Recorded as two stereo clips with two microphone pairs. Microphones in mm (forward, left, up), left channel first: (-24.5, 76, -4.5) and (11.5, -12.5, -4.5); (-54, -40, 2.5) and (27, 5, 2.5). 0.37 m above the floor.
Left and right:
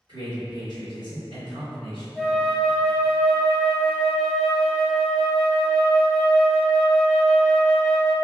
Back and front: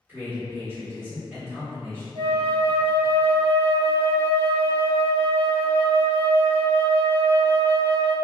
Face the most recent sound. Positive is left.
turn(degrees=30)